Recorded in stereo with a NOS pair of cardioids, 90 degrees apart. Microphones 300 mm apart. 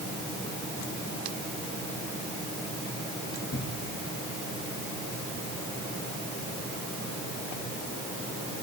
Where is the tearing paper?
45° left, 1.8 m.